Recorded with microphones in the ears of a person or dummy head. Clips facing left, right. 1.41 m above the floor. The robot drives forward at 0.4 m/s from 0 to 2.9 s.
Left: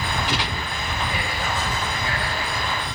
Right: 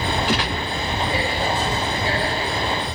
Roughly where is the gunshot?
Right.